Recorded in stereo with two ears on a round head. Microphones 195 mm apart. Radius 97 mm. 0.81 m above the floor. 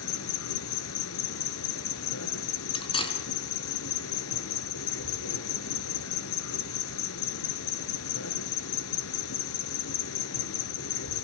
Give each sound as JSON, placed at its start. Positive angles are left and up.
{"t": 0.0, "sound": "an insect", "side_deg": 70, "distance_m": 1.7}
{"t": 2.7, "sound": "cutlery clinking", "side_deg": 25, "distance_m": 4.5}